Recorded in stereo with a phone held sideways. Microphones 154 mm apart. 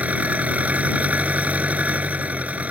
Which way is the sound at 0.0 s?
10° right (ahead or behind).